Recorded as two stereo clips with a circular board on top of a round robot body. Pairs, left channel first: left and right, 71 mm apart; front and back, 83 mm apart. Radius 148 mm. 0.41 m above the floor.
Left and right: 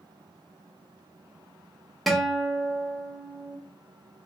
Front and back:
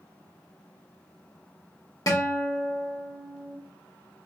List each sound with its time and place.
2.1 s a guitar: straight ahead, 1.2 m